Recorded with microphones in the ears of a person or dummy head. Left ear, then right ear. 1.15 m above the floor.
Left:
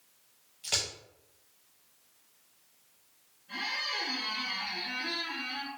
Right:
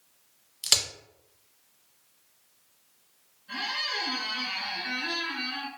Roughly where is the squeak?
Centre.